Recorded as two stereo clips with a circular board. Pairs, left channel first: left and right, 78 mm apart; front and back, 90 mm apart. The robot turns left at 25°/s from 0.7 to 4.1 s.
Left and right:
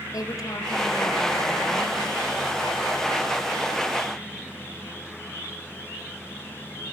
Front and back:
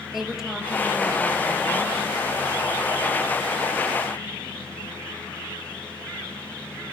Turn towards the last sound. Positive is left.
turn(degrees=10)